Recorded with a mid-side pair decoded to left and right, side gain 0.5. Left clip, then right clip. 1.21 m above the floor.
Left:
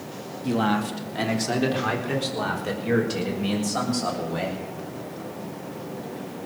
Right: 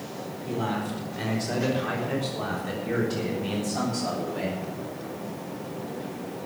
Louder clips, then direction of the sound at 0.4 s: Left 6 dB; 70° left.